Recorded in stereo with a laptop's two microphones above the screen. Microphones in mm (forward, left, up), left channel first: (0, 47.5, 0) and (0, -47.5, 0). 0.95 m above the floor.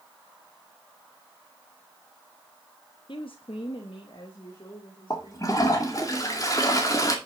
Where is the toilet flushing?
35° left (ahead or behind), 2 m.